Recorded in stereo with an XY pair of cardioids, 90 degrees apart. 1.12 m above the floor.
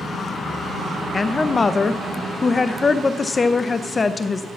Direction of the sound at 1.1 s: 30° left.